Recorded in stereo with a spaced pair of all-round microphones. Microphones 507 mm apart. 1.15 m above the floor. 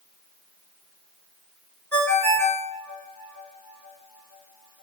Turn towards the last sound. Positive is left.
turn(degrees=5)  # may be behind; listen again after turning